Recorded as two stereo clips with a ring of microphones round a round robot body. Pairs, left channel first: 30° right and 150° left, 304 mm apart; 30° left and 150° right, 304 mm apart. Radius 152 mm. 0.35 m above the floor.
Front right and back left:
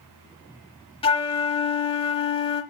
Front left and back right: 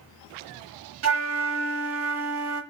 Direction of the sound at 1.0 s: 105° right.